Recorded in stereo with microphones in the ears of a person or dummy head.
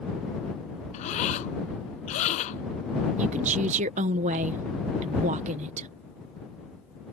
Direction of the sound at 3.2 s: 40° right (ahead or behind).